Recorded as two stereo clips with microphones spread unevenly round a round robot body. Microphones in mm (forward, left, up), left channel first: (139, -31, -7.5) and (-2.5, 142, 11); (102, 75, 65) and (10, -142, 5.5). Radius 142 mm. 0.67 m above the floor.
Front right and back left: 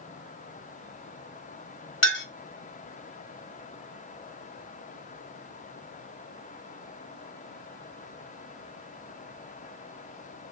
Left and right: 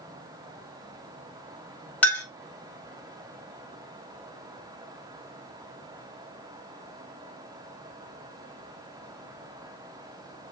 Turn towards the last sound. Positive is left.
turn(degrees=-20)